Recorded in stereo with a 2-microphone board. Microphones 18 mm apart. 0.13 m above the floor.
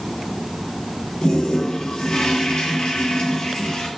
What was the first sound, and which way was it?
A toilet flushing, 60° left (ahead or behind).